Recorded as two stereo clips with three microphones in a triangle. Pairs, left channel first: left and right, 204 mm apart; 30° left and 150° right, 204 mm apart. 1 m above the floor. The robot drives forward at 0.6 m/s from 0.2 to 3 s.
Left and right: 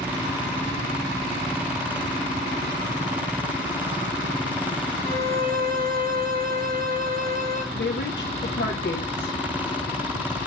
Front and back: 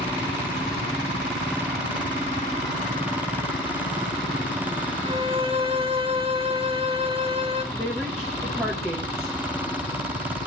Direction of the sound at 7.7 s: 125° left.